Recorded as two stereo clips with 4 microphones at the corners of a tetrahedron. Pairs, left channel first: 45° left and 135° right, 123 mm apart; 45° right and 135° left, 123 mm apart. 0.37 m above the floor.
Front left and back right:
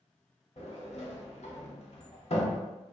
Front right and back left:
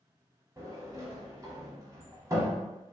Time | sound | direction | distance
0.6 | a sliding door | 75° left | 0.7 m